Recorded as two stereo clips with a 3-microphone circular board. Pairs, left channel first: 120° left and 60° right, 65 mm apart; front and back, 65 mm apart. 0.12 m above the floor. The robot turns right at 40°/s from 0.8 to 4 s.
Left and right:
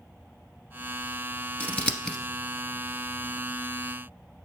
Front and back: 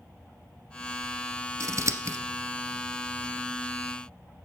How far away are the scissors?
About 0.9 m.